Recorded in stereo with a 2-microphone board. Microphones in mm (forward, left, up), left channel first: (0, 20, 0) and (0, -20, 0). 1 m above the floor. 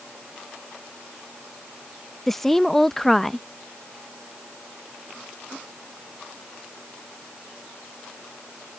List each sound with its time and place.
2.3 s a woman speaking: 5° left (ahead or behind)